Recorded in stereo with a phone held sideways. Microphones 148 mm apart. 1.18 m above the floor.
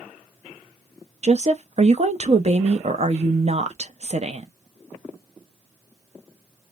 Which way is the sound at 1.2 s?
45° right (ahead or behind).